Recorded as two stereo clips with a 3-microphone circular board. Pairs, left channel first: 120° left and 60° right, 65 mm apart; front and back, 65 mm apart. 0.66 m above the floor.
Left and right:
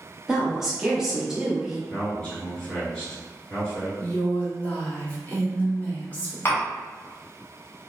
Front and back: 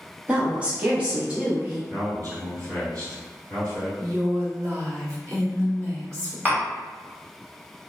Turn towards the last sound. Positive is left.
turn(degrees=140)